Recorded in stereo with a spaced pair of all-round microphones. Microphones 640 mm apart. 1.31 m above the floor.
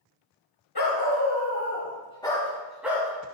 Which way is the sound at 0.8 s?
35° left (ahead or behind).